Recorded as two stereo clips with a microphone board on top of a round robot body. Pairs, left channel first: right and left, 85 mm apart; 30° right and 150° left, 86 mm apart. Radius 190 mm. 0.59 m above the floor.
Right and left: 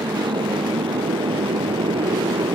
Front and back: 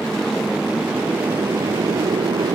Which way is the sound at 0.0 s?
55° left.